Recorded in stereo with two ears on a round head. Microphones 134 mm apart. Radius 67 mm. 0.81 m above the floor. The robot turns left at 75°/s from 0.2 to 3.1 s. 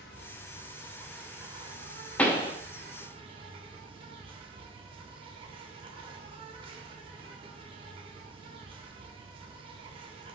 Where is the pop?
10° left (ahead or behind), 0.6 m; by 2.5 s 35° left (ahead or behind), 0.6 m.